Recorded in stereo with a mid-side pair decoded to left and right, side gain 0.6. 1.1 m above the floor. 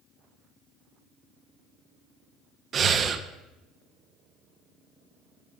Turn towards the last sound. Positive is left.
turn(degrees=-40)